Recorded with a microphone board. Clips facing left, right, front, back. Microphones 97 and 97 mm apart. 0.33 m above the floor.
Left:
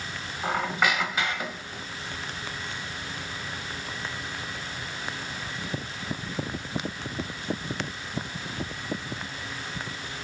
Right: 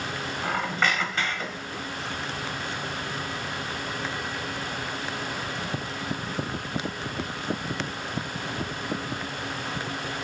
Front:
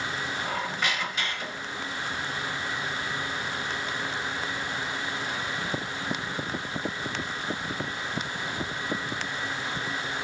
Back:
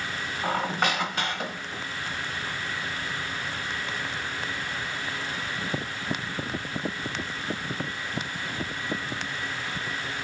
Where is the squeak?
170° left, 0.9 m.